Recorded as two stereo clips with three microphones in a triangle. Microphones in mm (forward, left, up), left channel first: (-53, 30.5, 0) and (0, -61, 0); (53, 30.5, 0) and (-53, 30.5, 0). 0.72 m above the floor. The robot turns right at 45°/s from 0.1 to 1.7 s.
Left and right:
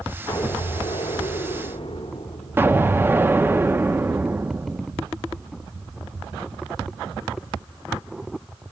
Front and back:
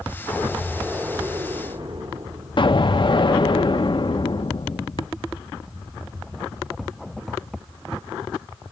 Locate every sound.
0.3 s an explosion: 80° left, 2.5 m; by 3.1 s 145° left, 2.5 m
2.6 s an explosion: straight ahead, 0.9 m